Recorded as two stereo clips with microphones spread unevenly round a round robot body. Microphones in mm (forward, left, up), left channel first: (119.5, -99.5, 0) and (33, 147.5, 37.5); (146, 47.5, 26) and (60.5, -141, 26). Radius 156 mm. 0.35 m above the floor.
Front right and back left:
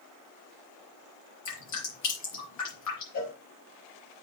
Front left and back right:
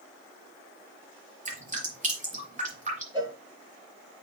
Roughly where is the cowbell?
Ahead right.